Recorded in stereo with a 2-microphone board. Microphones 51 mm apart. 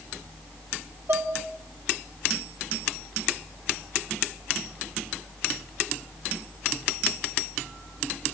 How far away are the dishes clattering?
About 1.9 m.